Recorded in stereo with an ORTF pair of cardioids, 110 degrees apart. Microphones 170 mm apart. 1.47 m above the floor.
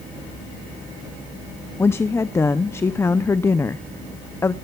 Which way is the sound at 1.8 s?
15° left.